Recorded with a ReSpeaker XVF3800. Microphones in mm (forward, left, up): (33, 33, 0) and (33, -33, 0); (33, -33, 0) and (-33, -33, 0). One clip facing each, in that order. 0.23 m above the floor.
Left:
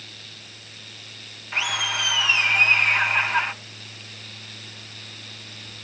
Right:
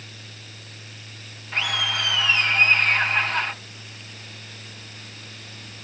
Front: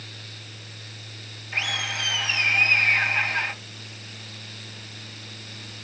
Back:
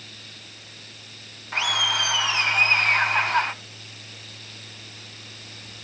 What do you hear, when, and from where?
1.5 s laughter: 170° left, 3 m